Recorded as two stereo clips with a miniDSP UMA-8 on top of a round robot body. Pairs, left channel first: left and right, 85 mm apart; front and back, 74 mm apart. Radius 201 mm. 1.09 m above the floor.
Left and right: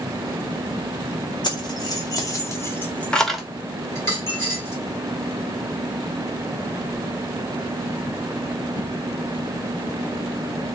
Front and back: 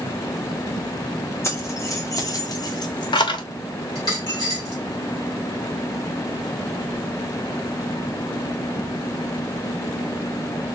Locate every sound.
1.4 s keys jangling: 55° left, 1.4 m; by 3.4 s 5° right, 0.7 m
4.0 s a dropped coin: 30° left, 0.7 m